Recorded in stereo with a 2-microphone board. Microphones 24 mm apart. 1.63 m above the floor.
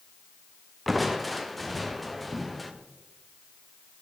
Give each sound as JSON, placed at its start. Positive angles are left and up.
{"t": 0.9, "sound": "crushing", "side_deg": 10, "distance_m": 0.8}